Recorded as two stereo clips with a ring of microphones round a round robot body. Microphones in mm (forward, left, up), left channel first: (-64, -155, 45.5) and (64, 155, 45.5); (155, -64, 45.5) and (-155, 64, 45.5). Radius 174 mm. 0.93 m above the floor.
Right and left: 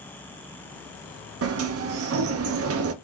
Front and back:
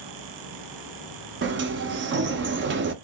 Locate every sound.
1.4 s a sliding door: 105° left, 0.6 m